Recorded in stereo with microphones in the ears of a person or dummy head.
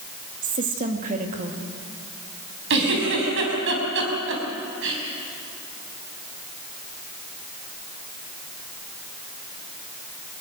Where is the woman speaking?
40° right (ahead or behind), 2 m.